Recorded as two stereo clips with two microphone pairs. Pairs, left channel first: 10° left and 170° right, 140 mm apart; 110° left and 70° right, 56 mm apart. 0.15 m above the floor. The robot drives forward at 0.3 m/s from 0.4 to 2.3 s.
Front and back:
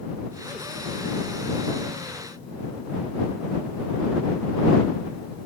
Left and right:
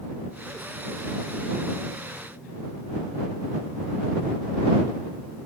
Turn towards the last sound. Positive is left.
No sound to turn to.